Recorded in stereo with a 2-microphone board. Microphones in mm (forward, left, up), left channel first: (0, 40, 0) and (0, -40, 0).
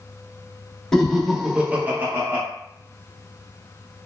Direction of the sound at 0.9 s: 5° left (ahead or behind).